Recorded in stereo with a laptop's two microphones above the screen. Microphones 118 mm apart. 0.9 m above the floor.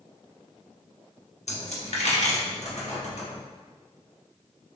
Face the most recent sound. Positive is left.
turn(degrees=70)  # may be behind; listen again after turning